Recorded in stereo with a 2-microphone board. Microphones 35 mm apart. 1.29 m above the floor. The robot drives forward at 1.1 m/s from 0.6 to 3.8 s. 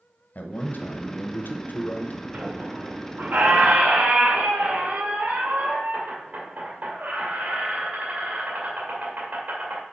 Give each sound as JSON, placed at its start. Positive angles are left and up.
{"t": 0.3, "sound": "a man speaking", "side_deg": 50, "distance_m": 1.1}
{"t": 2.3, "sound": "a squeak", "side_deg": -60, "distance_m": 1.7}